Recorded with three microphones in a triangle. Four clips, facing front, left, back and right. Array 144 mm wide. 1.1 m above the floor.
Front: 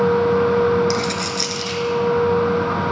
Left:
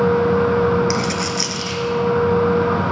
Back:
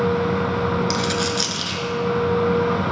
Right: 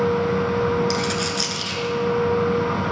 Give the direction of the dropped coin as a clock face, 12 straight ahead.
7 o'clock.